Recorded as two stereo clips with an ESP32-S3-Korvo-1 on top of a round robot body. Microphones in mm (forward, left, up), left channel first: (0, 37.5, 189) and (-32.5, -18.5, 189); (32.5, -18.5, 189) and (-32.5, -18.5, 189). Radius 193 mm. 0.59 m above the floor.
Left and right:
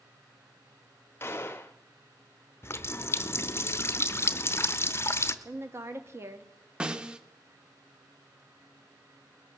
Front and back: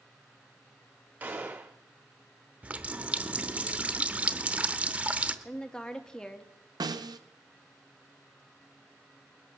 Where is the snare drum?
165° left, 0.7 m.